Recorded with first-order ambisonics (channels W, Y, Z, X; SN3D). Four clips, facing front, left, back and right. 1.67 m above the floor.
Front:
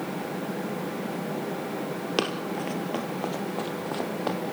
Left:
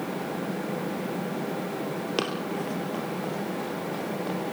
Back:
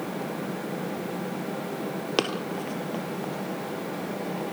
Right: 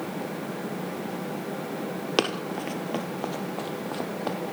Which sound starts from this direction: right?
Running footsteps, at 2.2 s.